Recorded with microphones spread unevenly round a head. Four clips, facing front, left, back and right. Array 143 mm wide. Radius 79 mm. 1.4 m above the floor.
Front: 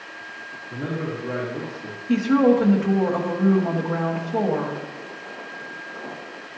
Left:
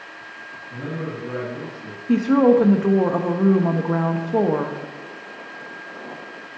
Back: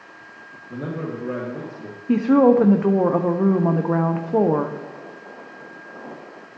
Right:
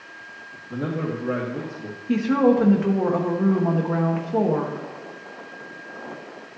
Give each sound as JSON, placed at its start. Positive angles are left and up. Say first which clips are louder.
{"t": 0.7, "sound": "a man speaking", "louder": "right 3 dB, even", "azimuth_deg": -140, "distance_m": 2.0}
{"t": 2.1, "sound": "a woman speaking", "louder": "left 3 dB, back 3 dB", "azimuth_deg": 160, "distance_m": 0.8}